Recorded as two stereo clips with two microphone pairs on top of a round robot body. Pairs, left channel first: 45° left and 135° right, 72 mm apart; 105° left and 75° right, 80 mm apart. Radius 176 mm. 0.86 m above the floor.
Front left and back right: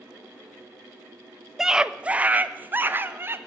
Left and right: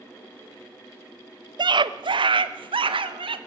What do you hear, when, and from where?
1.6 s a scream: 50° right, 1.0 m; by 3.4 s 75° right, 2 m